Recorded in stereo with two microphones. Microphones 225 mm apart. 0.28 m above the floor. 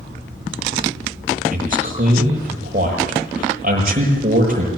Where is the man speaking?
40° right (ahead or behind), 8 m.